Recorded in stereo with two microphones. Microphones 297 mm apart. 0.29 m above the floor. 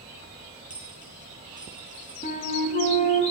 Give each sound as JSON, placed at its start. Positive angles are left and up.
{"t": 0.7, "sound": "a dropped coin", "side_deg": -25, "distance_m": 4.0}
{"t": 2.2, "sound": "a flute", "side_deg": 30, "distance_m": 1.3}